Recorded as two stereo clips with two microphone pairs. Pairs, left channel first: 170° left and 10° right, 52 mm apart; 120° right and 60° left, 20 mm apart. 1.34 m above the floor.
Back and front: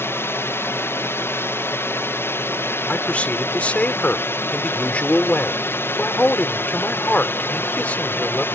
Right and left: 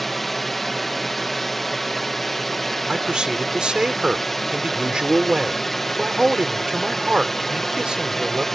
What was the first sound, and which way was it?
A drone, 165° left.